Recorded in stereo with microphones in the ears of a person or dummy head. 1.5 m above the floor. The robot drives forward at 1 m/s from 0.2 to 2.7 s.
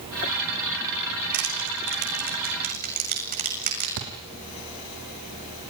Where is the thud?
65° right (ahead or behind), 5.5 m.